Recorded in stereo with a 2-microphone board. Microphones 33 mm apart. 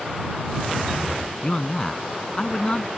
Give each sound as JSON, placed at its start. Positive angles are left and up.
{"t": 1.4, "sound": "a man speaking", "side_deg": 25}